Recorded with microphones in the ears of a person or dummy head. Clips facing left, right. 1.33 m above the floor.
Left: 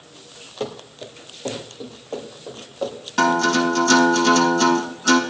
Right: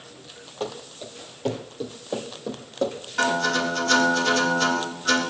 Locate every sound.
0.6 s running footsteps: 20° left (ahead or behind), 2 m; by 3.0 s 35° right (ahead or behind), 4 m
3.2 s a guitar: 65° left (ahead or behind), 4.5 m